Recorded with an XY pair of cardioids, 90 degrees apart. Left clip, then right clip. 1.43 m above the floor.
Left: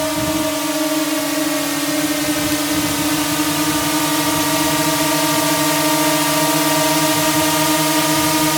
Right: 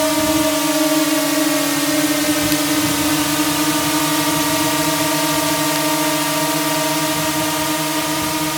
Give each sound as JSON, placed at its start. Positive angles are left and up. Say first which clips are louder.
{"t": 0.0, "sound": "a drone", "louder": "right 3 dB", "azimuth_deg": -30}